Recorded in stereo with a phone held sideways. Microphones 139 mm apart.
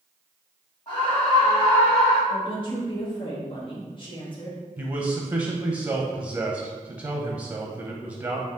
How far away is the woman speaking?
About 0.9 m.